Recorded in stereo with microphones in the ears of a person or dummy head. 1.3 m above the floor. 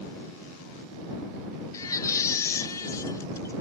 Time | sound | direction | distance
1.7 | a baby crying | 10° left (ahead or behind) | ?